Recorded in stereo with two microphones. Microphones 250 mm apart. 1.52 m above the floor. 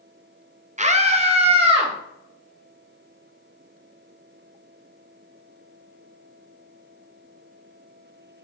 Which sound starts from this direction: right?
A scream, at 0.8 s.